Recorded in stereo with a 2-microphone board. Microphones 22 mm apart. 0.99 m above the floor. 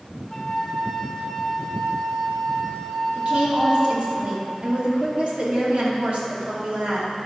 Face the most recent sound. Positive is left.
turn(degrees=-65)  # may be behind; listen again after turning